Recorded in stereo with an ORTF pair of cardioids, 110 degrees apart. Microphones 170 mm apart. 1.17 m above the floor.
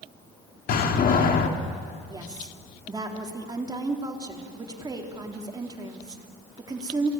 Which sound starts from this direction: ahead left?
A door slam, at 0.7 s.